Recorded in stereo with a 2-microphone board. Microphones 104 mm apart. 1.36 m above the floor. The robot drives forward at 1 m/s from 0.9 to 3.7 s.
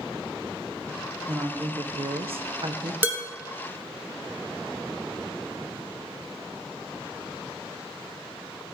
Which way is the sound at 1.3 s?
35° right (ahead or behind).